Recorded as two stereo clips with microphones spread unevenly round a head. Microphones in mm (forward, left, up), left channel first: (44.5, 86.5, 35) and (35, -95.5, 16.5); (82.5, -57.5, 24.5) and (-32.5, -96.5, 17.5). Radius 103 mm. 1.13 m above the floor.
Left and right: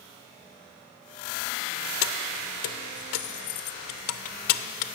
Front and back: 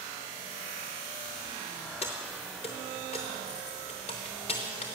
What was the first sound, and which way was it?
Keys jangling, 85° left.